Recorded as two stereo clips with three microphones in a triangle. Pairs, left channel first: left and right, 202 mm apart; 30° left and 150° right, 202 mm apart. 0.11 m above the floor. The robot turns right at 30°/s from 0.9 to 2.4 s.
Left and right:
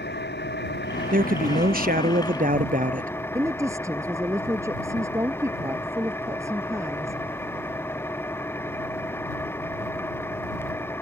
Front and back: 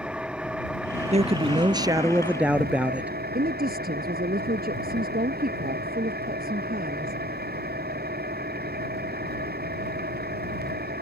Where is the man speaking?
105° right; by 3.1 s 70° right.